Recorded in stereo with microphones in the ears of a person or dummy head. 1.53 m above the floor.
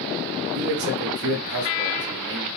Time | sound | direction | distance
0.6 | a man speaking | 65° right (ahead or behind) | 1.1 m